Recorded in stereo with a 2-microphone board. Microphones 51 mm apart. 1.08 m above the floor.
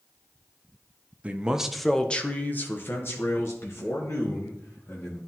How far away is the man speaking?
About 0.6 m.